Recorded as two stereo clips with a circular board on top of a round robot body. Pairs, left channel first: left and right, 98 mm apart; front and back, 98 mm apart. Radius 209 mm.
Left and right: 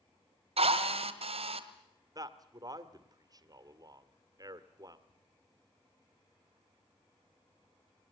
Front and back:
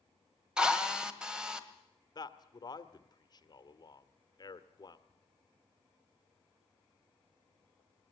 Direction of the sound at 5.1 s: 125° left.